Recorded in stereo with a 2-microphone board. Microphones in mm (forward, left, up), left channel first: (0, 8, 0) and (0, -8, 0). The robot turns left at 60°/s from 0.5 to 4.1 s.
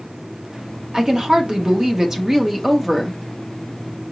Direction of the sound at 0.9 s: 65° right.